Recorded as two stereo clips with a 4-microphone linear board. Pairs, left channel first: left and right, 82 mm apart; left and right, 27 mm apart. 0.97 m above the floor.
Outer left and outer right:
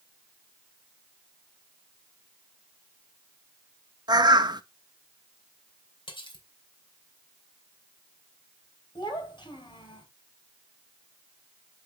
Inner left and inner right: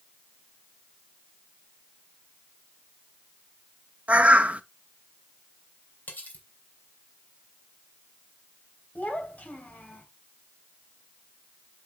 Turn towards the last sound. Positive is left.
turn(degrees=65)  # may be behind; listen again after turning